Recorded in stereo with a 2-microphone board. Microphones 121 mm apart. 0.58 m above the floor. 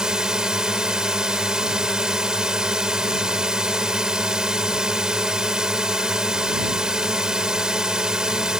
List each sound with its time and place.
0.0 s a drone: 5° right (ahead or behind)